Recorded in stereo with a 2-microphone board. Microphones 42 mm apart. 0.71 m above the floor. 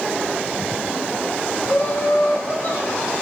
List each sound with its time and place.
1.6 s laughter: 70° left (ahead or behind), 2 m